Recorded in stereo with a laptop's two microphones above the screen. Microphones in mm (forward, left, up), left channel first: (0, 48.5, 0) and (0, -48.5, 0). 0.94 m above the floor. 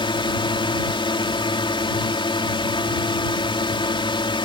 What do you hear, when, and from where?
0.0 s a drone: 60° left (ahead or behind)